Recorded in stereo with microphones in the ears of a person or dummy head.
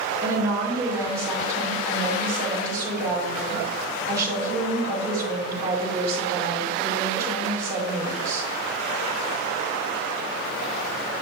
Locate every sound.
0.2 s a woman speaking: 15° right (ahead or behind), 3 m